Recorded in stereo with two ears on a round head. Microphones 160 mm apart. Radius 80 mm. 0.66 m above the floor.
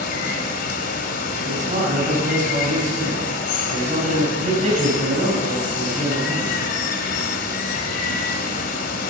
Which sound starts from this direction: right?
A man speaking, at 1.4 s.